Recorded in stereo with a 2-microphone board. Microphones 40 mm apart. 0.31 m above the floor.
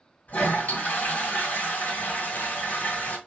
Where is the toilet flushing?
50° left (ahead or behind), 1.8 m.